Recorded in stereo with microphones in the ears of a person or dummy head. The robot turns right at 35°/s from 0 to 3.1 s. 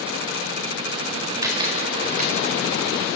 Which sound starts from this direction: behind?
A camera shutter, at 1.4 s.